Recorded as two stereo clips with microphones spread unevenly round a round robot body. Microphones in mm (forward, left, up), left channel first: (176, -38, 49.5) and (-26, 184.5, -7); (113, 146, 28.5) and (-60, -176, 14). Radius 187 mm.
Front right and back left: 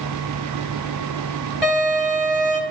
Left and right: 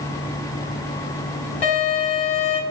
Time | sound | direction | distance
1.6 | a violin | 50° left | 4.5 m